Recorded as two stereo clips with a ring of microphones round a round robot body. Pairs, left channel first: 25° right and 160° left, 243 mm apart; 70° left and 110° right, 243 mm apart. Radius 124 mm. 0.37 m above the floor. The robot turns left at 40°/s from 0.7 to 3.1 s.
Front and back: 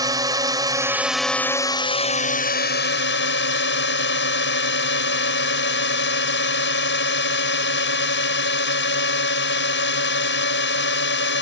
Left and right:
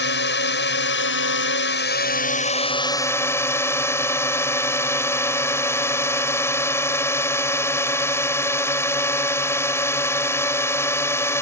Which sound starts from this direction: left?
A drone, at 0.0 s.